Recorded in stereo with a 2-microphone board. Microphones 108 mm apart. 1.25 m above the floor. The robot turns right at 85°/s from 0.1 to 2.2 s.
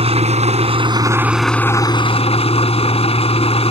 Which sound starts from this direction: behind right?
An engine running, at 0.0 s.